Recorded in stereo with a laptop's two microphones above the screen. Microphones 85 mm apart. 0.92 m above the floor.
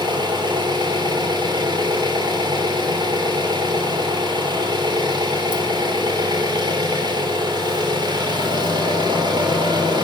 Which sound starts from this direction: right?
An engine running, at 0.0 s.